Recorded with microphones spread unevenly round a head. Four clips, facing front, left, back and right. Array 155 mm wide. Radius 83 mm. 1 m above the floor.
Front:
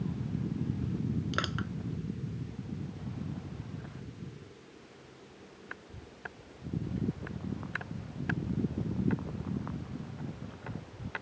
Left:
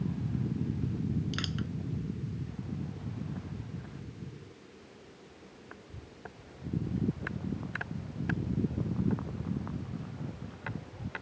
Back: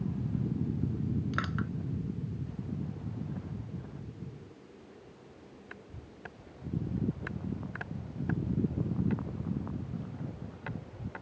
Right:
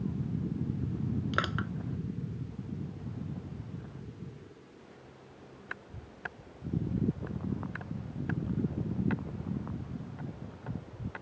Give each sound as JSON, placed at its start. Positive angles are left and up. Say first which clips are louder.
{"t": 1.3, "sound": "crushing", "louder": "right 4 dB, back 1 dB", "azimuth_deg": -55}